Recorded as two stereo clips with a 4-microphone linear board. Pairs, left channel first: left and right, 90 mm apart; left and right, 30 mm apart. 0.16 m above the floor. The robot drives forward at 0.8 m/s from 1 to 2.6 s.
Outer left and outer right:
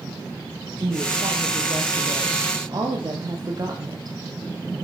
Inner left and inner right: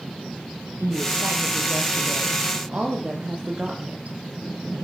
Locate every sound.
0.8 s a woman speaking: 60° right (ahead or behind), 4 m; by 4.2 s 45° right (ahead or behind), 4.5 m